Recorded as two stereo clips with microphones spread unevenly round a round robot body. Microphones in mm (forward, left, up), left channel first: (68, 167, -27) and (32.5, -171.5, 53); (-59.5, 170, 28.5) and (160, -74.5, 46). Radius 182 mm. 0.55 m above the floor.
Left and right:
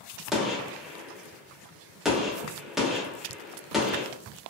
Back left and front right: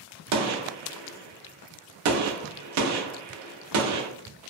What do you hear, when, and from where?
0.3 s a gunshot: 5° right, 0.5 m